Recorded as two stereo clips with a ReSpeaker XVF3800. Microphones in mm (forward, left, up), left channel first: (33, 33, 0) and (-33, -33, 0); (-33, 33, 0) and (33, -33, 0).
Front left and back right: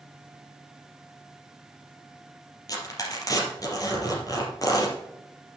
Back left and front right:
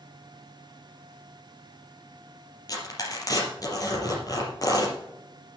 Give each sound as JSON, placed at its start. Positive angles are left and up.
{"t": 2.7, "sound": "tearing paper", "azimuth_deg": 90, "distance_m": 3.5}